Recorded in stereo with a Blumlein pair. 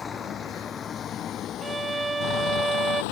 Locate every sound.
0.0 s a vehicle: 20° left; by 3.1 s 50° left
1.6 s a violin: 10° right